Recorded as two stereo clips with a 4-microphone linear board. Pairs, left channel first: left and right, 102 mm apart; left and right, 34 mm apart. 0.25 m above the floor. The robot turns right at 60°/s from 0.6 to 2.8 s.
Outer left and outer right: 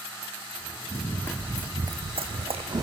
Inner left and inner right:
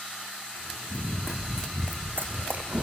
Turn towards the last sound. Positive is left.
turn(degrees=-35)  # may be behind; listen again after turning